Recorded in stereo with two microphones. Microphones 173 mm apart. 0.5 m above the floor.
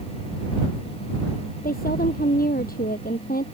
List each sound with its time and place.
1.6 s a woman speaking: 60° left (ahead or behind)